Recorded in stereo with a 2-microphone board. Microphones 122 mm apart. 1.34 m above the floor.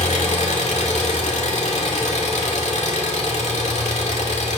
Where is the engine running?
70° left (ahead or behind), 2.0 m.